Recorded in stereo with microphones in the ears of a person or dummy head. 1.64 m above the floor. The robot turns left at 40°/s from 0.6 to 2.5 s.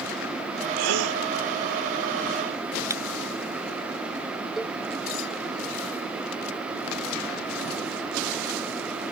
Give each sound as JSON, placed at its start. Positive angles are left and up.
{"t": 0.8, "sound": "a gasp", "side_deg": -85}
{"t": 2.9, "sound": "breaking glass", "side_deg": -15}
{"t": 4.6, "sound": "a cowbell", "side_deg": 0}